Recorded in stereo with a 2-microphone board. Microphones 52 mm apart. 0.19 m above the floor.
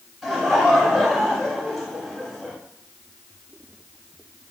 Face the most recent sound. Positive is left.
turn(degrees=-5)  # may be behind; listen again after turning